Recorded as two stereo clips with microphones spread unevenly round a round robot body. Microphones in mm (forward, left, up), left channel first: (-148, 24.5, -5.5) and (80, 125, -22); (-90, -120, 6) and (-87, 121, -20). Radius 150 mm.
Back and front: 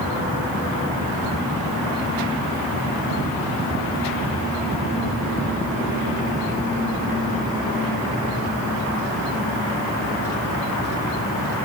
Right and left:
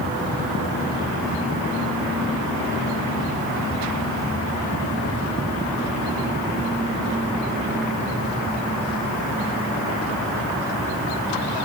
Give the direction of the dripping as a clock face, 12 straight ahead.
No dripping in this recording.